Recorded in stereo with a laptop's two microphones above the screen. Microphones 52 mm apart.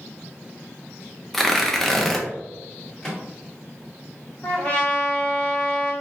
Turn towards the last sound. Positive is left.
turn(degrees=25)  # may be behind; listen again after turning